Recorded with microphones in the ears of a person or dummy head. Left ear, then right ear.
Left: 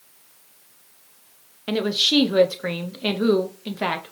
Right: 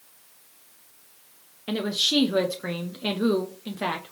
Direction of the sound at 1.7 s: 10° left (ahead or behind).